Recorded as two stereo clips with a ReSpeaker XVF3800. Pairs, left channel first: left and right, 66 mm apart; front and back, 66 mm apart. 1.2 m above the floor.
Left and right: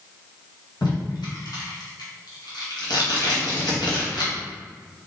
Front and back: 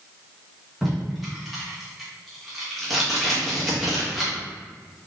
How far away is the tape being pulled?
About 1.3 m.